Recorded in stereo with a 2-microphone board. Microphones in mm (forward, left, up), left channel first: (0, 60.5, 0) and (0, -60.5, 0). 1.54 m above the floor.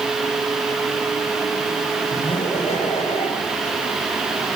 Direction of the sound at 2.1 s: 60° left (ahead or behind).